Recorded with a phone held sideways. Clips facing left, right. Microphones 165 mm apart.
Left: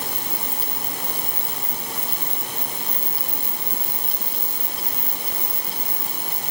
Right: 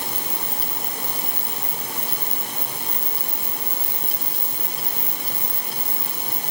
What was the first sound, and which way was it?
Only background noise.